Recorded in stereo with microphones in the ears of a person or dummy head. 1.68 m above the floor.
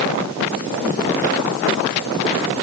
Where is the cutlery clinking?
I don't hear cutlery clinking.